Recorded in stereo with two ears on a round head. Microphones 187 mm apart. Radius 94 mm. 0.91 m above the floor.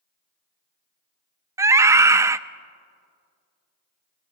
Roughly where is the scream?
Centre.